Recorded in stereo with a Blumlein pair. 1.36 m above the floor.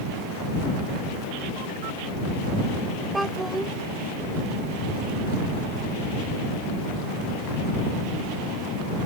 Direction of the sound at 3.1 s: 5° right.